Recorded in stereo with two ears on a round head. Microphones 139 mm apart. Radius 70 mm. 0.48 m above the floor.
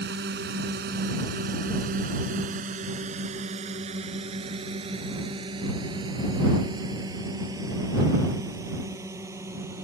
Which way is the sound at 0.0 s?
75° right (ahead or behind).